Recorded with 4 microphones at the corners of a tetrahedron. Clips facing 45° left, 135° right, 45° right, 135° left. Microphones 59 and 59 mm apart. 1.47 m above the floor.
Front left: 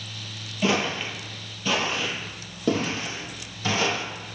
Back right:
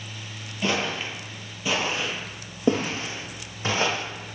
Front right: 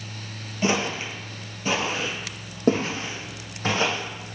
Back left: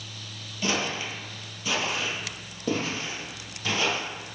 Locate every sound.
0.6 s footsteps: 30° right, 1.6 m; by 4.0 s 85° right, 3.5 m